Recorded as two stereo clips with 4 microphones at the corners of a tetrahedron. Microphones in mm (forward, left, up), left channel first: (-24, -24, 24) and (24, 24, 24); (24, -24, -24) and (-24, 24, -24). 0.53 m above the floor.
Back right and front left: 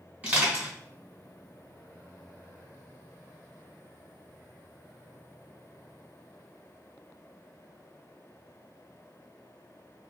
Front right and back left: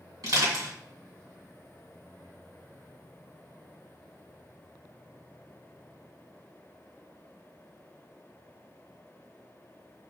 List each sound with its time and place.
0.2 s crushing: 115° left, 2.5 m